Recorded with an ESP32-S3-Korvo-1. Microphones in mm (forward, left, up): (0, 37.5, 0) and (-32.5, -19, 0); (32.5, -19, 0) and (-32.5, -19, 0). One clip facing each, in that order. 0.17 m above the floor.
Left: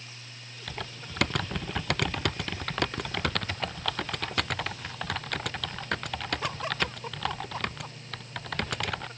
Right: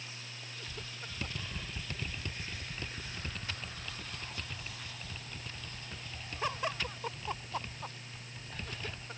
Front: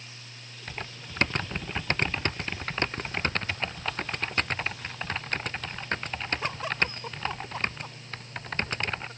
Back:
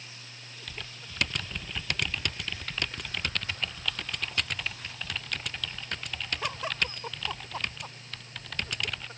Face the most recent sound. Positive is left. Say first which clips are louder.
# left 10 dB, front 5 dB
turn(degrees=55)